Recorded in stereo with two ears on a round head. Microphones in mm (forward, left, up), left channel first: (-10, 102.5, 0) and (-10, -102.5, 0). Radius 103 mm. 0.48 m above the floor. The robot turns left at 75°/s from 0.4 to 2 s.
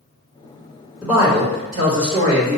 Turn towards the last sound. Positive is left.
turn(degrees=-75)